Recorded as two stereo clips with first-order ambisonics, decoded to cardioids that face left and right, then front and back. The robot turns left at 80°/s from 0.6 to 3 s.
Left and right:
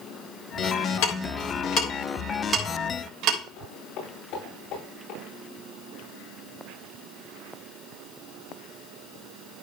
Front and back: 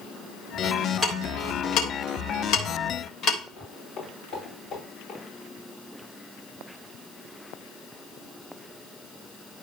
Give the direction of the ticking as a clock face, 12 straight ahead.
9 o'clock.